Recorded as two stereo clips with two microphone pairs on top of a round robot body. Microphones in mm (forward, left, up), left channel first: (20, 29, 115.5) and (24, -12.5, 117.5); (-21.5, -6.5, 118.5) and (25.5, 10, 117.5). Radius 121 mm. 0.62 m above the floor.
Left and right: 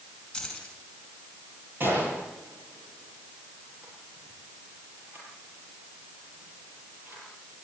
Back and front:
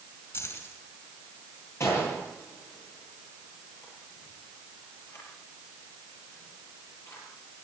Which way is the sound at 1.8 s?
125° right.